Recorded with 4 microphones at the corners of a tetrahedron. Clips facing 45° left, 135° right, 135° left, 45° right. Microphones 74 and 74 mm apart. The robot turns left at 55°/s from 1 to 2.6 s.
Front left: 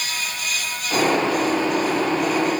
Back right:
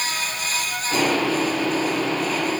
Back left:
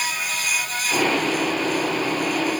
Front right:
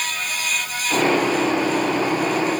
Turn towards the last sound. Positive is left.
No sound to turn to.